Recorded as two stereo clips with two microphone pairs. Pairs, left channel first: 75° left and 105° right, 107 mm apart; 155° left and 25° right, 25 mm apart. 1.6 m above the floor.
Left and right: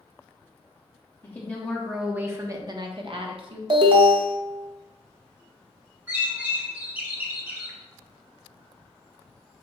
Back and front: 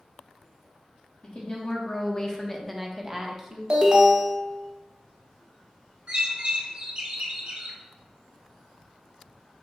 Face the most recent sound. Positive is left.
turn(degrees=-35)